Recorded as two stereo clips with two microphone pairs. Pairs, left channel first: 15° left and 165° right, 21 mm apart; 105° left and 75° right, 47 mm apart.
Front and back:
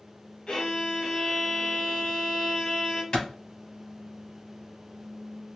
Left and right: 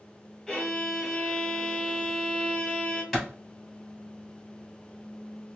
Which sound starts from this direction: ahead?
A clap, at 3.1 s.